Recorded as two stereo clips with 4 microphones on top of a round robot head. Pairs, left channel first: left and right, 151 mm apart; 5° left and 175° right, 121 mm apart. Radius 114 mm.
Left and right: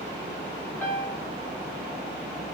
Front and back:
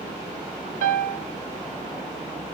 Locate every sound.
0.8 s a piano: 170° left, 0.5 m